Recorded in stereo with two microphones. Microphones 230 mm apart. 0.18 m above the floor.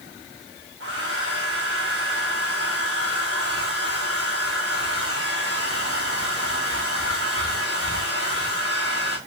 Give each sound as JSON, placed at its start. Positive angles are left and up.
{"t": 0.8, "sound": "a hair dryer", "side_deg": -80, "distance_m": 2.5}